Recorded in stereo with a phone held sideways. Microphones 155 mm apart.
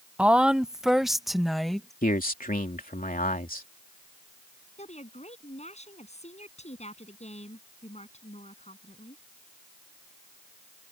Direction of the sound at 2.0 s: 65° left (ahead or behind).